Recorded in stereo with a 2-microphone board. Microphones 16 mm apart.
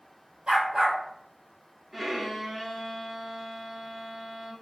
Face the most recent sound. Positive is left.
turn(degrees=-10)  # may be behind; listen again after turning